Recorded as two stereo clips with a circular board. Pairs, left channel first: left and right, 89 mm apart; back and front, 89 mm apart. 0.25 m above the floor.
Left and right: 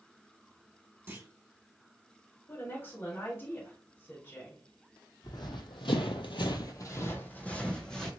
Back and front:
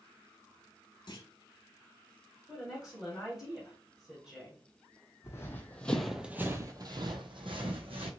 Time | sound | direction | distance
1.1 | a clunk | 150° right | 0.7 m
2.5 | a woman speaking | 80° left | 1.4 m
5.2 | running footsteps | 125° left | 0.8 m